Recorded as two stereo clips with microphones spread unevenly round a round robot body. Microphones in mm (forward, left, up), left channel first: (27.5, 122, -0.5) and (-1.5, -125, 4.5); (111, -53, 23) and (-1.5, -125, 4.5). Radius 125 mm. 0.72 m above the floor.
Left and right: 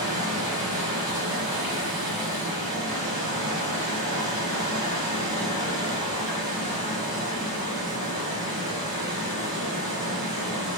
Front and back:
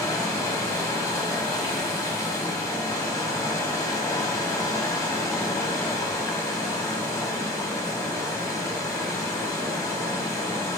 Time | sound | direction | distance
0.0 | running water | 40° right | 1.4 m